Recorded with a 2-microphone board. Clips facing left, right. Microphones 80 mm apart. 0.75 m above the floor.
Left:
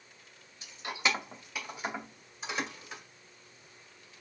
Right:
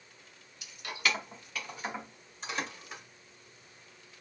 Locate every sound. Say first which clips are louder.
0.6 s keys jangling: left 1 dB; 35° left (ahead or behind), 0.5 m; by 3.0 s 5° left (ahead or behind), 2 m